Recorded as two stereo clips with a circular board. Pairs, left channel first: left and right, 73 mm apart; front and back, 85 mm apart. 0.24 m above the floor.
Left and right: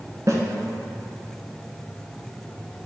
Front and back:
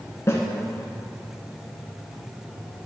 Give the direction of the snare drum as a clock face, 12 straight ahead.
2 o'clock.